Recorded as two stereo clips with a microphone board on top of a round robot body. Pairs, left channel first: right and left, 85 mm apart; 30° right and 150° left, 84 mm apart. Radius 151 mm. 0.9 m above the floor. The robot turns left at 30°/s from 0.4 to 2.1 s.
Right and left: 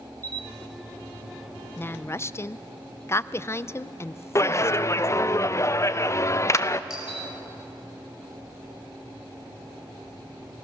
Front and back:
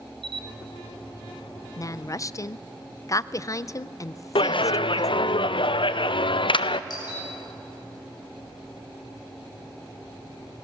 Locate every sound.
0.2 s a camera shutter: 135° left, 1.3 m
1.8 s a woman speaking: 40° right, 0.6 m; by 5.3 s 50° right, 0.6 m
4.3 s a clap: 35° right, 0.7 m
6.9 s a doorbell: 10° left, 6 m